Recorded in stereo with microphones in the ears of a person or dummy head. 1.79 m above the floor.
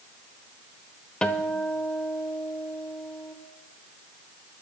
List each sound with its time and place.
1.2 s a guitar: 5° left (ahead or behind), 1.0 m